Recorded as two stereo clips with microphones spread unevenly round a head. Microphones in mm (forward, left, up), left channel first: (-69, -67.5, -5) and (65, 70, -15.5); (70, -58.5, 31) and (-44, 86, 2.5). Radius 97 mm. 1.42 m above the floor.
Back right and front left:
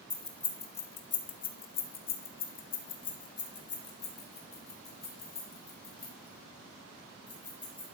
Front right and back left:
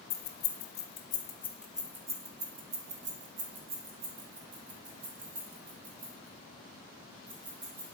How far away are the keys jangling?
About 1.1 m.